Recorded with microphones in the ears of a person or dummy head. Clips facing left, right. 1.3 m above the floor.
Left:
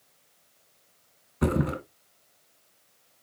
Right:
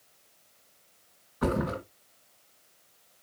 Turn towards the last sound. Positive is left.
turn(degrees=40)  # may be behind; listen again after turning